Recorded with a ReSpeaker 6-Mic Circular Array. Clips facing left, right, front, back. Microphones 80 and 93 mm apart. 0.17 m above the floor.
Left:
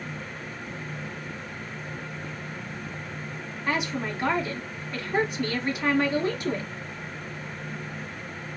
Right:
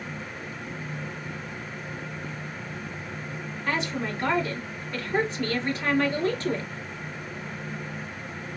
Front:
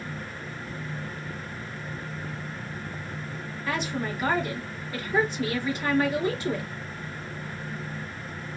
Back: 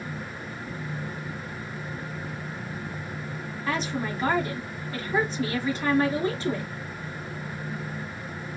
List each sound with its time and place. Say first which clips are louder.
3.7 s a woman speaking: left 1 dB, back 1 dB; 160° left, 1.5 m